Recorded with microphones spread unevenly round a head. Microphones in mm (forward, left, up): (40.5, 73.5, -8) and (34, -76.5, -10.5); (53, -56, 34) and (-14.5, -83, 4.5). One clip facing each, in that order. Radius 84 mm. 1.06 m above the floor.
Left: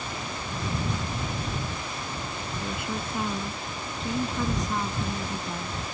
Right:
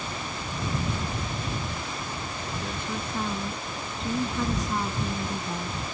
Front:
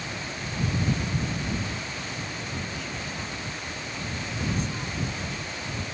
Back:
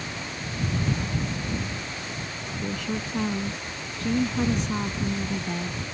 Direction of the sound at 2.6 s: 170° left.